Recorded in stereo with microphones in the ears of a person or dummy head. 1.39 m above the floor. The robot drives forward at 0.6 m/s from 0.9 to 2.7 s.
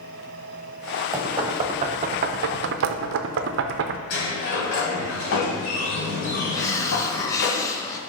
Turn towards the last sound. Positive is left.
turn(degrees=15)  # may be behind; listen again after turning